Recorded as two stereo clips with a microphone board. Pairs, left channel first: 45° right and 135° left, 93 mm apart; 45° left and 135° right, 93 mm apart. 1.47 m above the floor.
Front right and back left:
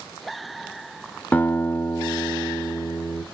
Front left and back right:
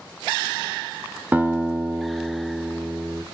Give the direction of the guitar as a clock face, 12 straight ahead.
3 o'clock.